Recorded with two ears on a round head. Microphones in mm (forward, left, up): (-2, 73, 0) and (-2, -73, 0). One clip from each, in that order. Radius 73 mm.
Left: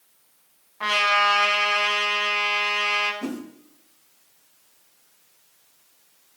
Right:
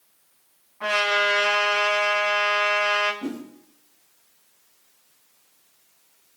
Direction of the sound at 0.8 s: 35° left (ahead or behind).